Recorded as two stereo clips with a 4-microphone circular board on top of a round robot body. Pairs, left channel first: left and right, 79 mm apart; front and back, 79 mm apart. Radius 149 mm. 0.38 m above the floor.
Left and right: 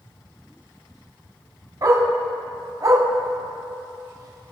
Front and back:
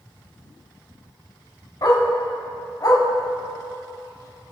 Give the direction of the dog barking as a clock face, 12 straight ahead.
1 o'clock.